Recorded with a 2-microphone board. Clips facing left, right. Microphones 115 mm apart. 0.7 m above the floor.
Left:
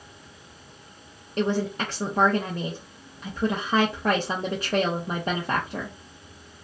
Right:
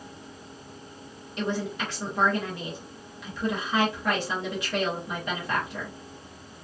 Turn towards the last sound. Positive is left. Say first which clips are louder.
# left 5 dB
turn(degrees=40)  # may be behind; listen again after turning